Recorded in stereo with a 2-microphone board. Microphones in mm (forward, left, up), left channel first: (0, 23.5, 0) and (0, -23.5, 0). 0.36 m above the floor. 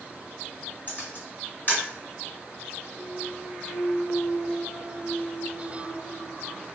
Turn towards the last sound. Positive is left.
turn(degrees=45)  # may be behind; listen again after turning